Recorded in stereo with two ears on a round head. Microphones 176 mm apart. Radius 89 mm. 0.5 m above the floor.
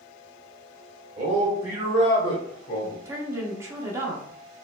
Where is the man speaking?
35° right (ahead or behind), 1.3 m; by 3.0 s 50° left (ahead or behind), 1.3 m.